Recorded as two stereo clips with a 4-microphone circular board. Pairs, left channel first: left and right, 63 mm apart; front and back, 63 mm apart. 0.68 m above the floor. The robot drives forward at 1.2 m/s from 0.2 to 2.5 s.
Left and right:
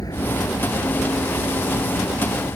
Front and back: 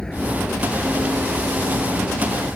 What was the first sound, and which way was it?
A vehicle, 80° left.